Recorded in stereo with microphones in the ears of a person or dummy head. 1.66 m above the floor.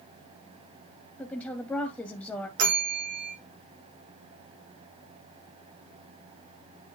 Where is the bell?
50° right (ahead or behind), 1.9 m.